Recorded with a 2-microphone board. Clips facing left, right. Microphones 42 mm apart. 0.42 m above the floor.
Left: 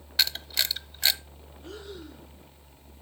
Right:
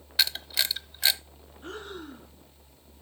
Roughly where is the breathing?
Right.